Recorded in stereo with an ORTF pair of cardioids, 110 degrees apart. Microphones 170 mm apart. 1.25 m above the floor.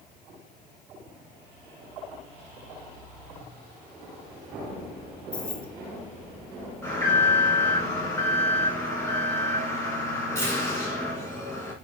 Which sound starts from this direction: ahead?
An alarm, at 6.8 s.